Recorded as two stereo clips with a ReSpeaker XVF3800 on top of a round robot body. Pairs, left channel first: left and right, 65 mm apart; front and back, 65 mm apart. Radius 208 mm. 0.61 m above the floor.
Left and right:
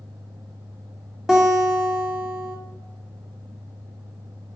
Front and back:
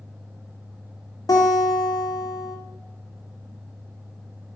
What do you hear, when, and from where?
1.3 s a guitar: 5° right, 2.5 m